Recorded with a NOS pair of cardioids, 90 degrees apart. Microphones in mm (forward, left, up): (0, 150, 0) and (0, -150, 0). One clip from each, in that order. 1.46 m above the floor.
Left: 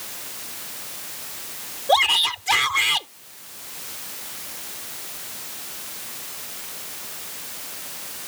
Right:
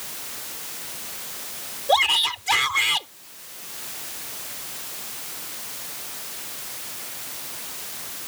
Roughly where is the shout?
Ahead.